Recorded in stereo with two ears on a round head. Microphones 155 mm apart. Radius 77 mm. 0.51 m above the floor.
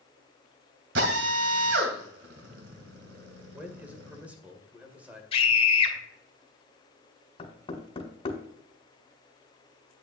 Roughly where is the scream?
Left.